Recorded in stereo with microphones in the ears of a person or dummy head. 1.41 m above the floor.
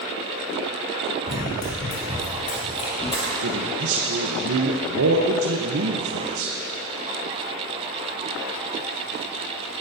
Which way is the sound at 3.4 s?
65° right (ahead or behind).